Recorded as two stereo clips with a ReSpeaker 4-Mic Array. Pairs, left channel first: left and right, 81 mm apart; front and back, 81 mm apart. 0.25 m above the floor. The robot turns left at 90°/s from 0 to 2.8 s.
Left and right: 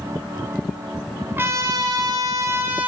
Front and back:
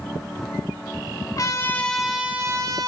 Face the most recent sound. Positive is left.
turn(degrees=-160)